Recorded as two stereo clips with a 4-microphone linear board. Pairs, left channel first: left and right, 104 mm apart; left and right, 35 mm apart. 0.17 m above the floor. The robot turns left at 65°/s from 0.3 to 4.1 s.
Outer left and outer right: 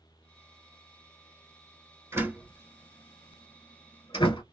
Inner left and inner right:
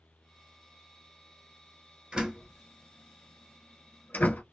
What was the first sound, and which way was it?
A door slam, 25° right (ahead or behind).